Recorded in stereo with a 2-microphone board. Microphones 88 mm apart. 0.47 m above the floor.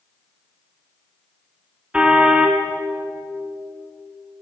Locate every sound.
1.9 s a car horn: 10° right (ahead or behind), 2.5 m